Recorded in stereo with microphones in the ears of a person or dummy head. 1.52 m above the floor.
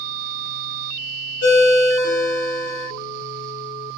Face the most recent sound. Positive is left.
turn(degrees=55)  # may be behind; listen again after turning